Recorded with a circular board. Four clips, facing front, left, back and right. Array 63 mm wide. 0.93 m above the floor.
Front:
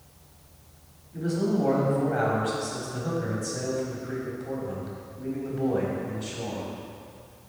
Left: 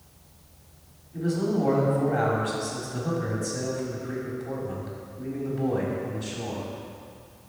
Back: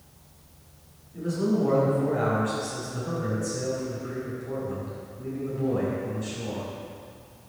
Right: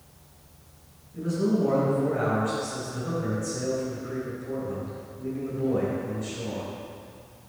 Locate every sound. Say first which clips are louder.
1.1 s a man speaking: even, even; 35° left, 4.5 m